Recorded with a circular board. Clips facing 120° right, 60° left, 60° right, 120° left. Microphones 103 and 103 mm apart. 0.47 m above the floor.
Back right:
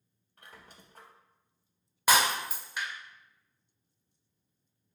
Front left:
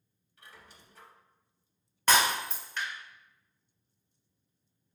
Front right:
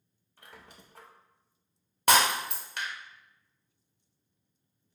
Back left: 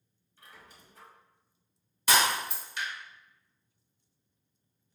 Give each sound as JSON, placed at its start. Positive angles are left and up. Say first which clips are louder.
{"t": 0.4, "sound": "a squeak", "louder": "back right 1 dB, front right 2 dB", "azimuth_deg": -80, "distance_m": 0.6}
{"t": 2.1, "sound": "breaking glass", "louder": "even, front right 3 dB", "azimuth_deg": -40, "distance_m": 0.7}